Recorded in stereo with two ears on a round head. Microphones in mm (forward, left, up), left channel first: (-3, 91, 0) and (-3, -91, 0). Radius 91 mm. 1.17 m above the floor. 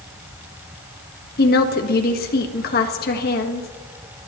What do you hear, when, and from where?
1.4 s a woman speaking: 50° left (ahead or behind), 1.6 m